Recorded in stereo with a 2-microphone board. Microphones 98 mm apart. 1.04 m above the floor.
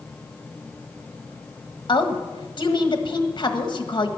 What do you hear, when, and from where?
1.9 s a woman speaking: 50° left (ahead or behind), 1.4 m